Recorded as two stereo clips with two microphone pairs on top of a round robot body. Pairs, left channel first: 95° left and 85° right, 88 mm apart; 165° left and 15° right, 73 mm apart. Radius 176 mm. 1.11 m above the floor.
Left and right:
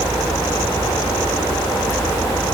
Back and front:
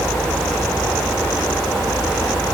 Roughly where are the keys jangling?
I don't hear keys jangling.